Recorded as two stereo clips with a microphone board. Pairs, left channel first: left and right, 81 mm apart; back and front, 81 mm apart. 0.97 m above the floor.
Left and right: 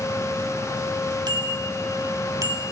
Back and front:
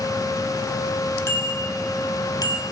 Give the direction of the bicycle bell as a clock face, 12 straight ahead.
4 o'clock.